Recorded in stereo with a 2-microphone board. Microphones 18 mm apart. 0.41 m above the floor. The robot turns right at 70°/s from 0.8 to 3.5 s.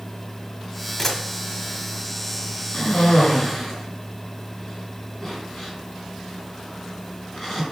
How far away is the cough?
About 4.5 m.